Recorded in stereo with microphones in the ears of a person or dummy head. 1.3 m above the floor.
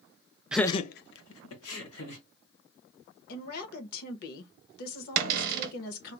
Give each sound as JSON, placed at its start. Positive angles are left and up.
{"t": 0.5, "sound": "laughter", "side_deg": -5, "distance_m": 0.5}
{"t": 3.3, "sound": "a woman speaking", "side_deg": 55, "distance_m": 1.0}
{"t": 5.2, "sound": "a cupboard door", "side_deg": -50, "distance_m": 0.7}